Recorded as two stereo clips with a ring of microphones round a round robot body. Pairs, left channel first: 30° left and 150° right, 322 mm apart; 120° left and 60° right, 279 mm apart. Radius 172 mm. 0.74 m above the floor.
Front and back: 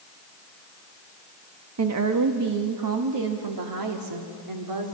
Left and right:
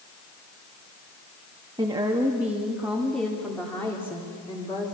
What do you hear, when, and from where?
1.8 s a woman speaking: 130° right, 1.2 m; by 4.9 s 160° right, 2.5 m